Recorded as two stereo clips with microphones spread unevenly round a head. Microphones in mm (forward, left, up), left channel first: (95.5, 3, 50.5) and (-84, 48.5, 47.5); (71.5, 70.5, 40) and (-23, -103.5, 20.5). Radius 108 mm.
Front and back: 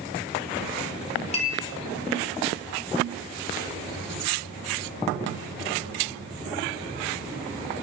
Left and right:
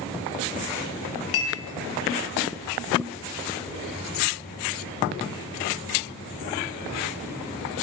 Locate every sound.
1.3 s a clink: 45° left, 1.5 m